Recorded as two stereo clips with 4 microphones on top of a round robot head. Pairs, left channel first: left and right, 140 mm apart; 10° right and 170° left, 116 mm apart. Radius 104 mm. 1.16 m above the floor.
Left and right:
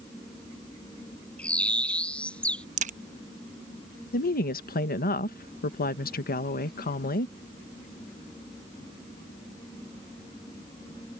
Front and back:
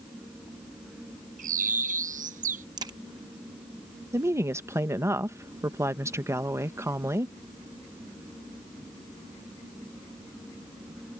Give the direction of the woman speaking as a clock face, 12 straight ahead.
9 o'clock.